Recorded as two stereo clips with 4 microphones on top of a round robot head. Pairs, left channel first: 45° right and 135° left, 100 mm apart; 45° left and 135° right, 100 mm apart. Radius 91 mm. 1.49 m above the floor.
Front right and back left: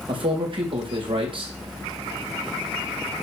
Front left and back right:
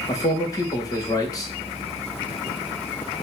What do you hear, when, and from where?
0.1 s a man speaking: 100° left, 2 m